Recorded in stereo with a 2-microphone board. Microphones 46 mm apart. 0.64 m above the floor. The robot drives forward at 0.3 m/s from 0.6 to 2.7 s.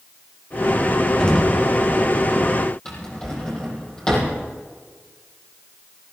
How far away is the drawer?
About 6.5 m.